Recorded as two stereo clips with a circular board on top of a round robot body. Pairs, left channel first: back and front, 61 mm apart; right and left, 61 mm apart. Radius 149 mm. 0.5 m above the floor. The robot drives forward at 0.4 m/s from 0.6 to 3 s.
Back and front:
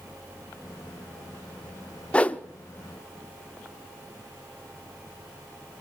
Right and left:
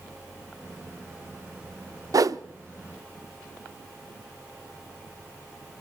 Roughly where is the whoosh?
Left.